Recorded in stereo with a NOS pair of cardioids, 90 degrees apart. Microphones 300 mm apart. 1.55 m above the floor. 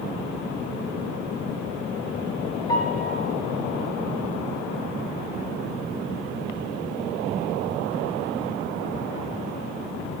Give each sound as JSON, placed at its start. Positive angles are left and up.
{"t": 2.7, "sound": "a piano", "azimuth_deg": 15, "distance_m": 0.6}